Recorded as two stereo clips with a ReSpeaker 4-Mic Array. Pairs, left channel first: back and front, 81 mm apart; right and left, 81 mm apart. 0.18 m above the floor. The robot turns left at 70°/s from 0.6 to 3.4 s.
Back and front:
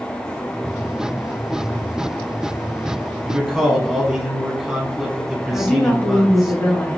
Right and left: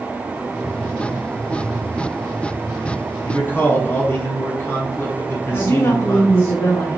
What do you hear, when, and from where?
3.2 s a man speaking: 70° right, 1.2 m; by 6.5 s 80° right, 1.2 m
5.5 s a woman speaking: 120° right, 1.6 m